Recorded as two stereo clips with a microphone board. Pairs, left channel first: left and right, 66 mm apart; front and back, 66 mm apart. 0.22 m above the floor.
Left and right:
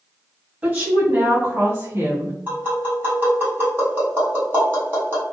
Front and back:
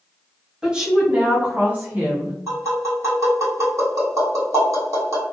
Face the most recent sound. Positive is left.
turn(degrees=-145)